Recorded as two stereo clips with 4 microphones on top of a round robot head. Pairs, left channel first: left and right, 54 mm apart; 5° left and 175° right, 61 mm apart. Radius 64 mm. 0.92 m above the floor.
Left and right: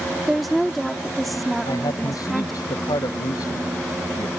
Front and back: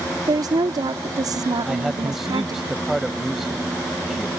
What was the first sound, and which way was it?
A woman speaking, straight behind.